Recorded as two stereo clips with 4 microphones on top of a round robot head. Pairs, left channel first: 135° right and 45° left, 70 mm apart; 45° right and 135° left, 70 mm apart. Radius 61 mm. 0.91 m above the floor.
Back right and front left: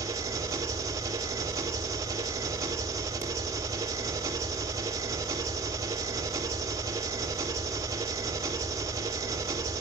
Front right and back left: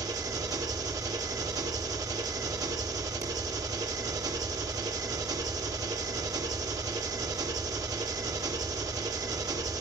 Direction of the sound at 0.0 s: 95° left.